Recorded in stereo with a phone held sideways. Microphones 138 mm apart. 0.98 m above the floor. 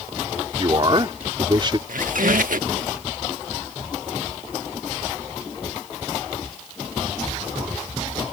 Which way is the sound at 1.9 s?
80° right.